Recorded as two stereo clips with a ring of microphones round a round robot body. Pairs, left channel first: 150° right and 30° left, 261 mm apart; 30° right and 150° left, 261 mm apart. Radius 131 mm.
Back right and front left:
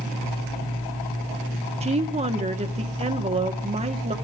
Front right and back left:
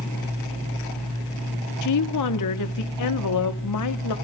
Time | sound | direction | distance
1.8 | a woman speaking | 35° right | 1.4 m